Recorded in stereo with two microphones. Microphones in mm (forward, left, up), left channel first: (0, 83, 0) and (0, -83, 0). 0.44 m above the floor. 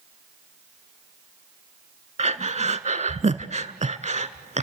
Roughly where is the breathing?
Right.